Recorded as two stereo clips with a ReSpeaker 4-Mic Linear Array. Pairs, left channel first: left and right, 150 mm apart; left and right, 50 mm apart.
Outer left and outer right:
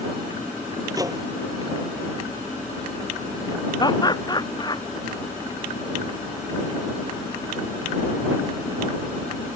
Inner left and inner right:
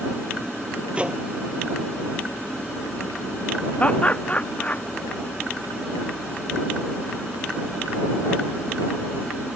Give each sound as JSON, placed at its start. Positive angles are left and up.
{"t": 0.9, "sound": "a microwave", "side_deg": -25}
{"t": 3.8, "sound": "laughter", "side_deg": 30}